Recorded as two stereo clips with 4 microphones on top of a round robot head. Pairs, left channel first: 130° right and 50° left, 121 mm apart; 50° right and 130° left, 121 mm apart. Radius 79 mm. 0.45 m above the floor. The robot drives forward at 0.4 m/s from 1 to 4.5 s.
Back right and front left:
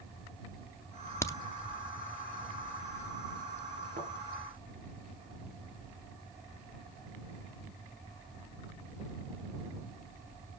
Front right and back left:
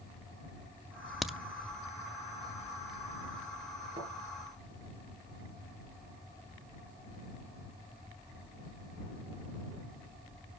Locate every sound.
1.2 s a crack: 140° right, 0.8 m; by 1.4 s 150° right, 0.8 m
4.0 s a thud: 80° left, 4.5 m